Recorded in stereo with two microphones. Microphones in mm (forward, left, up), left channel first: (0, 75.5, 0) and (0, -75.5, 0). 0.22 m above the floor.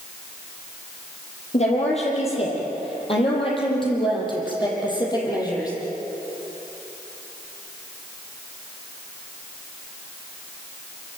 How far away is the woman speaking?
About 7.5 m.